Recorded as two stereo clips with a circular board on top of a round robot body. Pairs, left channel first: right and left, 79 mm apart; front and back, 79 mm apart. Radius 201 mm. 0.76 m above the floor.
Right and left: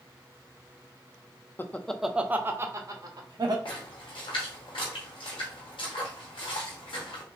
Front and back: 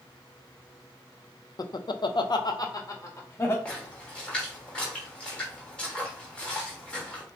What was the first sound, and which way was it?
Laughter, 30° right.